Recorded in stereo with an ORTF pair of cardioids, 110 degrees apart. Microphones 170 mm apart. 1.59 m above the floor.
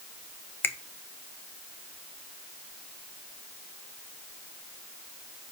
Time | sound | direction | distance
0.6 | a finger snap | 15° left | 0.7 m